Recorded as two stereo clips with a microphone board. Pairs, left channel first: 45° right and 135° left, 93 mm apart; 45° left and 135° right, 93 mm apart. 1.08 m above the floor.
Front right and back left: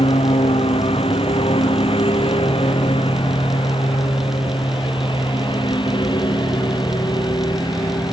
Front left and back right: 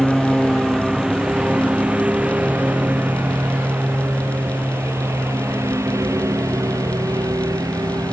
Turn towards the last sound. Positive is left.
turn(degrees=-85)